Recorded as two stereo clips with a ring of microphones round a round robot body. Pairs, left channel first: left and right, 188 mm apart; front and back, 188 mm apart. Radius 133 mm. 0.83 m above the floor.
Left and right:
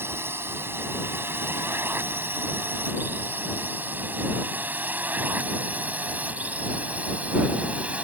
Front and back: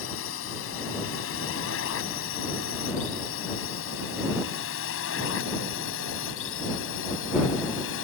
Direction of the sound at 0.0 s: 10° right.